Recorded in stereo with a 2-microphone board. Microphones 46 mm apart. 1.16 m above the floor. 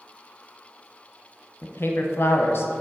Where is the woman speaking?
55° left (ahead or behind), 0.8 m.